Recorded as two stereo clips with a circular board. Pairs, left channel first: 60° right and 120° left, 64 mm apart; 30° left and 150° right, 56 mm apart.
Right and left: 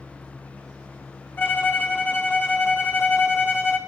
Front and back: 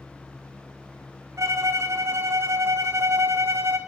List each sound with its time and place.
1.4 s a violin: 120° right, 2.0 m